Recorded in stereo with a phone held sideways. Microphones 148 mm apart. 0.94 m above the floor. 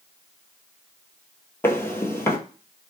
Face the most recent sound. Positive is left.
turn(degrees=15)  # may be behind; listen again after turning